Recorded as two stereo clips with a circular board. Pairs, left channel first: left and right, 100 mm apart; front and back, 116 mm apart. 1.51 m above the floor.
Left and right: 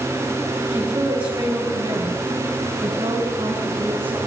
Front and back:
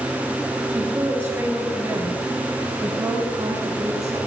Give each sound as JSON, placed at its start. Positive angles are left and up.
{"t": 0.7, "sound": "a woman speaking", "azimuth_deg": -105, "distance_m": 3.5}